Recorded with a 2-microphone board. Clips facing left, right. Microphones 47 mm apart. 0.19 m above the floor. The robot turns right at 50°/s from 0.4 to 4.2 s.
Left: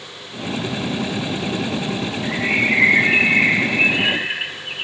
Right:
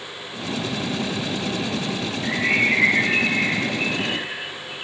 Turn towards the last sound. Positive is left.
turn(degrees=90)